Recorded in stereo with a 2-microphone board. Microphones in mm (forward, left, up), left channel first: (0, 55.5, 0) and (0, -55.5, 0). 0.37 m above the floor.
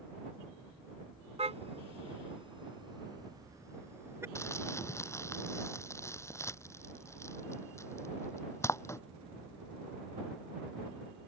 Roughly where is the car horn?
Right.